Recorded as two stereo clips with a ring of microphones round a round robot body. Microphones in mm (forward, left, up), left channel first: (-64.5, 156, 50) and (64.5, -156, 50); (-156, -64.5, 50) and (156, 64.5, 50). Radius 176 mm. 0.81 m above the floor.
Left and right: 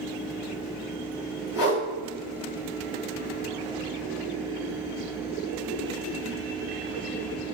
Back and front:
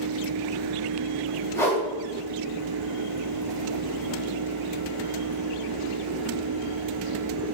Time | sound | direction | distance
1.5 | a whoosh | 120° left | 3 m